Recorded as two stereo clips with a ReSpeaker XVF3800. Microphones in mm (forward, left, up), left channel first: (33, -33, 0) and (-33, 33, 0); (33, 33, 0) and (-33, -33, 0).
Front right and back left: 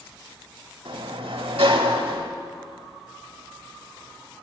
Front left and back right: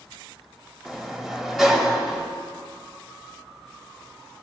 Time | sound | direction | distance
0.8 | a sliding door | 140° left | 1.1 m